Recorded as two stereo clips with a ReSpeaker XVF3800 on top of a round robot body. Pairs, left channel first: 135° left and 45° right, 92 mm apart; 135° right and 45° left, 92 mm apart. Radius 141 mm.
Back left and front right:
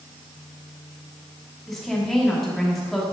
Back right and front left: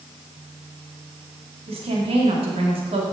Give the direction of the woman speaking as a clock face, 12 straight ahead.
10 o'clock.